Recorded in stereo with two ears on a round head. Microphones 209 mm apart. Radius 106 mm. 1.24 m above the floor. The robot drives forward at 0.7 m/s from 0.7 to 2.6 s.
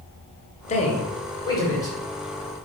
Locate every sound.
0.7 s a man speaking: 35° left (ahead or behind), 0.7 m; by 2.0 s 15° left (ahead or behind), 1.4 m